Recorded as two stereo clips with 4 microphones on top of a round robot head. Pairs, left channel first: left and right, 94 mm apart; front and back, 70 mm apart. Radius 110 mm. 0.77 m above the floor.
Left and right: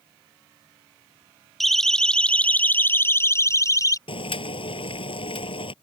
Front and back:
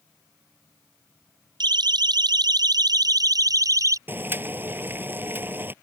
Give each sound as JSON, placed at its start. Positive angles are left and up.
{"t": 1.6, "sound": "a siren", "azimuth_deg": 180}
{"t": 4.1, "sound": "boiling", "azimuth_deg": 120}